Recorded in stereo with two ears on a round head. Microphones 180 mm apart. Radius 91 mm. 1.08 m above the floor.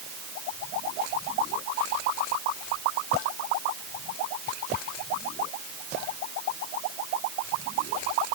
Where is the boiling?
No boiling in this recording.